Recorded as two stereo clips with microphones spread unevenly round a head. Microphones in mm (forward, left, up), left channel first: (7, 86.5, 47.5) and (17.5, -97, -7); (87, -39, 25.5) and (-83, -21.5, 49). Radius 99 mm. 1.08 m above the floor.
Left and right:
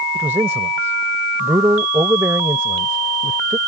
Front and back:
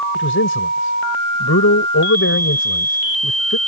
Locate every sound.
0.1 s a man speaking: 5° right